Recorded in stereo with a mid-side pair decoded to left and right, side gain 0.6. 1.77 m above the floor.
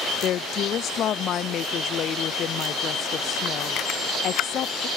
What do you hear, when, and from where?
0.2 s a woman speaking: 50° left